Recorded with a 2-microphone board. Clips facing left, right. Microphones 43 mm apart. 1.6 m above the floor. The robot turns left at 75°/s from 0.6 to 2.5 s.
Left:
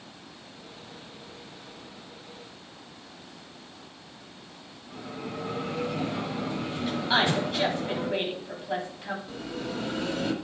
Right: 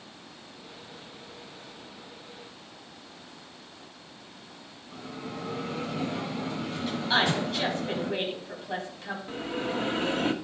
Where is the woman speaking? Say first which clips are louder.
Left 1 dB; 10° left (ahead or behind), 3.5 m.